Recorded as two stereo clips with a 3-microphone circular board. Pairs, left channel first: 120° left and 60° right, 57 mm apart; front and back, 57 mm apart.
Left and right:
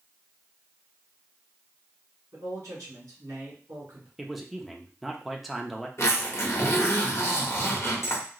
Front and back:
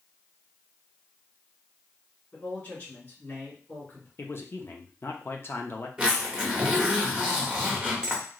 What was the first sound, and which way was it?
A man speaking, 50° right.